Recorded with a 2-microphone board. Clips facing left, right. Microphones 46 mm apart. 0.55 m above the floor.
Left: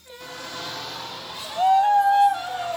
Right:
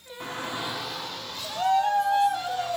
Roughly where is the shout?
Right.